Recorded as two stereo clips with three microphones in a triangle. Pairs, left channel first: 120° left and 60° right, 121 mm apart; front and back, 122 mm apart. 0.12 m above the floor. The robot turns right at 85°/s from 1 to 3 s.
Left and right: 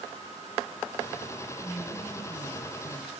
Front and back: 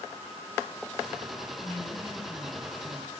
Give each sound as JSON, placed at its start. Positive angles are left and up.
{"t": 1.6, "sound": "a woman speaking", "azimuth_deg": 20, "distance_m": 2.5}